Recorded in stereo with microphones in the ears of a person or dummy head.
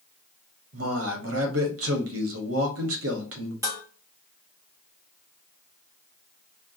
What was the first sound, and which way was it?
A man speaking, 70° right (ahead or behind).